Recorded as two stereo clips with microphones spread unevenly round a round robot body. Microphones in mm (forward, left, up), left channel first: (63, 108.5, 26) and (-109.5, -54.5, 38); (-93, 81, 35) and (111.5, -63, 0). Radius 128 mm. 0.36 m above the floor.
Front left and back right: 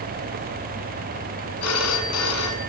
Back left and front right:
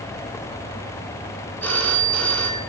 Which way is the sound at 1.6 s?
60° left.